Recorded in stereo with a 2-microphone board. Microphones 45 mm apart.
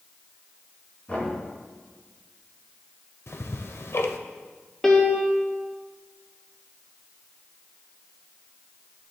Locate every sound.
1.1 s knocking: 30° left (ahead or behind), 5 m
3.3 s ticking: 75° left (ahead or behind), 0.7 m
4.8 s a piano: 10° left (ahead or behind), 1.3 m